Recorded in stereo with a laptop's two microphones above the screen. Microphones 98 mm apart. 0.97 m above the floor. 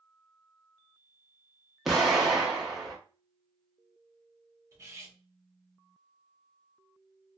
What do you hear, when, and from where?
1.9 s an explosion: 5° right (ahead or behind), 1.0 m
4.7 s cutlery clinking: 30° right (ahead or behind), 0.8 m